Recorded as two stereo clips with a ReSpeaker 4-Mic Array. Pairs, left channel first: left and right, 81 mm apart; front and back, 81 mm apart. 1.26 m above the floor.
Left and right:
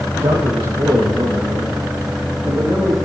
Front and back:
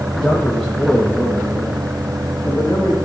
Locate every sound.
0.1 s a man speaking: 85° right, 1.5 m; by 3.0 s 70° right, 3 m